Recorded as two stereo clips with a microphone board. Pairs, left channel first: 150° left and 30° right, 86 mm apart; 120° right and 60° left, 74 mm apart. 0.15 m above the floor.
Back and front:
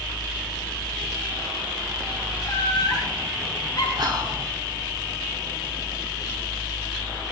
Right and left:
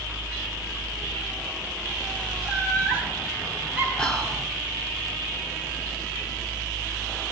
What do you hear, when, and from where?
2.4 s laughter: 155° left, 2.5 m; by 3.9 s 135° left, 2.5 m
4.0 s whispering: 45° right, 3 m